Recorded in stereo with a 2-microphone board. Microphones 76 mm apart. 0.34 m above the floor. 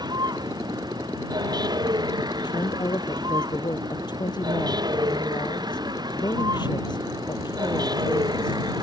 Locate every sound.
0.0 s a vehicle: 70° right (ahead or behind)
2.4 s a woman speaking: 80° left